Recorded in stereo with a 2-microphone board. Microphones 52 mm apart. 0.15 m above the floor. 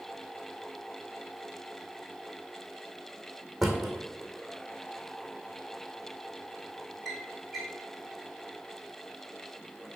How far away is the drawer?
About 1.8 m.